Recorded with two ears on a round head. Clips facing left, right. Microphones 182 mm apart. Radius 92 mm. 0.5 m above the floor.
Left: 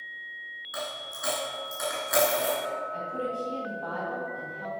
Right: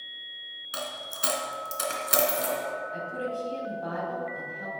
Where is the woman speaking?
25° right (ahead or behind), 3 m.